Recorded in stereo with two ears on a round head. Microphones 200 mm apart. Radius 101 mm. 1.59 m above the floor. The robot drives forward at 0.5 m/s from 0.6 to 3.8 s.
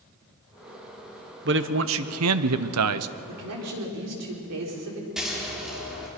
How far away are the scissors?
About 3 m.